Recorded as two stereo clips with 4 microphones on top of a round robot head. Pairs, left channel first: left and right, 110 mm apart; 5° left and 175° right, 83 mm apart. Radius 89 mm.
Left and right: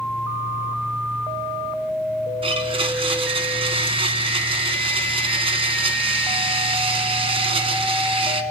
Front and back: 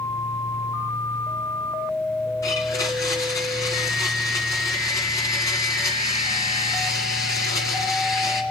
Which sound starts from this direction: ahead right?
A blender, at 2.4 s.